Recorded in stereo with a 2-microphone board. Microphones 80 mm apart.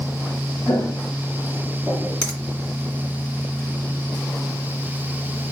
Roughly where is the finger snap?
Centre.